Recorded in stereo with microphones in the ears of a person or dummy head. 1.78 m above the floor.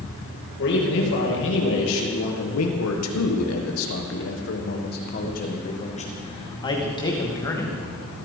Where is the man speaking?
65° left (ahead or behind), 2.5 m; by 7.8 s 15° left (ahead or behind), 3 m.